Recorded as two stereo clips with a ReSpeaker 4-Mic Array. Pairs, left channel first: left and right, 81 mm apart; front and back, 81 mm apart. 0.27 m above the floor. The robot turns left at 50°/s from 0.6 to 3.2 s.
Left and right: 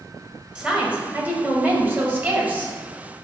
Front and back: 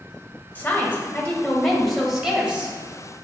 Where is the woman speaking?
30° right, 0.9 m; by 2.8 s 135° right, 0.9 m.